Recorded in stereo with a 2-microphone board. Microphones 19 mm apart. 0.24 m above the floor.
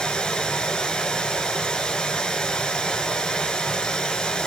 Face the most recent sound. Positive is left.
turn(degrees=55)  # may be behind; listen again after turning